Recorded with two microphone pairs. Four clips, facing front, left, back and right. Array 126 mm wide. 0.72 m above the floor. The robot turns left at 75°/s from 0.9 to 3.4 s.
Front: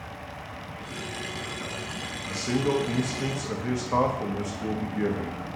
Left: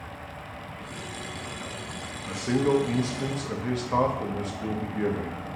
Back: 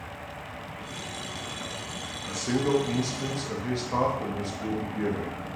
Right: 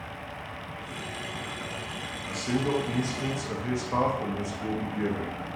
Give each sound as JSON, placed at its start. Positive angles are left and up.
{"t": 2.3, "sound": "a man speaking", "azimuth_deg": 120, "distance_m": 0.7}